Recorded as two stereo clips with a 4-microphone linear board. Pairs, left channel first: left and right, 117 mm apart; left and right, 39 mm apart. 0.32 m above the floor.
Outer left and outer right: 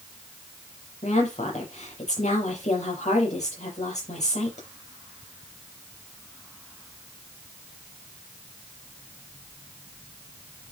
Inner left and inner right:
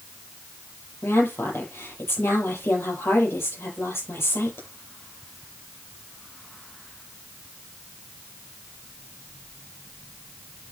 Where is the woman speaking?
80° left, 8.5 m.